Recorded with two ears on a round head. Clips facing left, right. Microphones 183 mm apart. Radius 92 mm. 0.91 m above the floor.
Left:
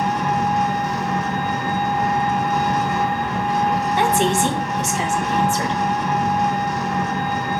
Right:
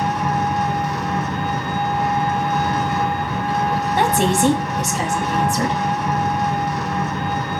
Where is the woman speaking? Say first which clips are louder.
Right 2 dB; 35° right (ahead or behind), 1.4 m.